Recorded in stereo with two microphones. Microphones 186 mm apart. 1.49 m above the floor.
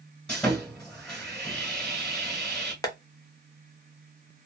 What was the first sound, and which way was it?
Sawing, 5° left (ahead or behind).